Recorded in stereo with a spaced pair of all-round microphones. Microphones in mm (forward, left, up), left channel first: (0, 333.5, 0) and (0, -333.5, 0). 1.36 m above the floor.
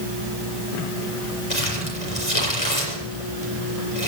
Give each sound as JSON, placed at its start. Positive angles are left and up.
{"t": 1.5, "sound": "crumpling", "side_deg": 60, "distance_m": 5.5}